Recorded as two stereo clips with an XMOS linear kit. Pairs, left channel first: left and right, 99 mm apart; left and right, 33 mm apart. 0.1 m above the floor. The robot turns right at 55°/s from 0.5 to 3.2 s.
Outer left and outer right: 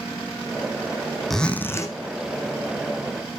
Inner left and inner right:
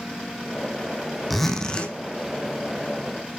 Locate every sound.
1.3 s a zipper: straight ahead, 1.3 m; by 1.9 s 35° left, 1.3 m